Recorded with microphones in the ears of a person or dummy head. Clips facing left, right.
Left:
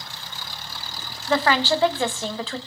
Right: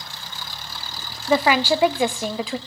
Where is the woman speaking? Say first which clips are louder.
Right 2 dB; 10° right (ahead or behind), 0.5 m.